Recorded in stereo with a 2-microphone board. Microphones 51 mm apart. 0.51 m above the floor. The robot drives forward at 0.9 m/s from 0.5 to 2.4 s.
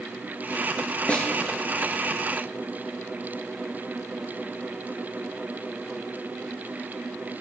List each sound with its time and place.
1.1 s a snare drum: 25° left (ahead or behind), 2 m